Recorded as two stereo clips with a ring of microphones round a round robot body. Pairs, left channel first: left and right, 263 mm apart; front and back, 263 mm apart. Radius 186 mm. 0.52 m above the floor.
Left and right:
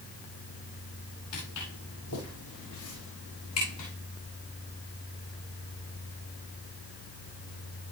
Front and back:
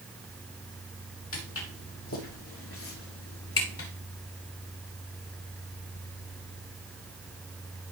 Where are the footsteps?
35° left, 6 m.